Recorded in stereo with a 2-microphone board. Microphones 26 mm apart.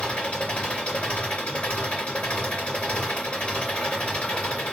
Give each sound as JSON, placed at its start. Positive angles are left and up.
{"t": 0.0, "sound": "an engine running", "side_deg": 65, "distance_m": 2.5}